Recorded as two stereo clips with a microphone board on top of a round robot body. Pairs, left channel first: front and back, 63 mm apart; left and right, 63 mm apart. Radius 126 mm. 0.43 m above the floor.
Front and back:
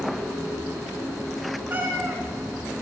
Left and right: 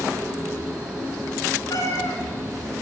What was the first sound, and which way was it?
A cat meowing, 125° left.